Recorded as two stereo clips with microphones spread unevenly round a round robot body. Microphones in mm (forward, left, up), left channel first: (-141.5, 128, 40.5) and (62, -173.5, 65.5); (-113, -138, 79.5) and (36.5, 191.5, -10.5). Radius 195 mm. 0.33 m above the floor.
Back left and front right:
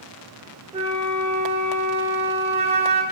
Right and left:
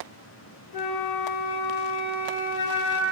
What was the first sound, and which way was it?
A flute, 125° right.